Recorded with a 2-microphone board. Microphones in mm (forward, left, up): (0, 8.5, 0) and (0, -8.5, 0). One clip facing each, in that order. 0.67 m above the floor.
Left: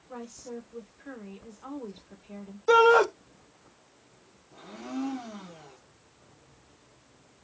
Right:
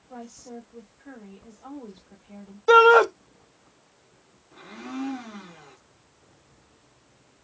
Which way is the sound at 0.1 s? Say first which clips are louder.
Left 1 dB; 25° left (ahead or behind).